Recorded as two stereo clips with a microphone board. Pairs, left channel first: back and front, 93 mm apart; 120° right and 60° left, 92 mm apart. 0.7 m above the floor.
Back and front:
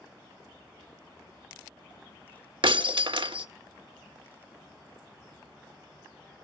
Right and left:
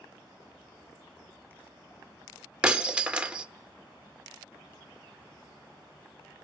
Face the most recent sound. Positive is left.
turn(degrees=-20)